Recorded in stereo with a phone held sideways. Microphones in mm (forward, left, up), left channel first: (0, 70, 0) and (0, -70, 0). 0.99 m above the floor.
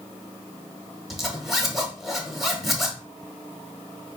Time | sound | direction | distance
1.1 | a zipper | centre (ahead or behind) | 0.9 m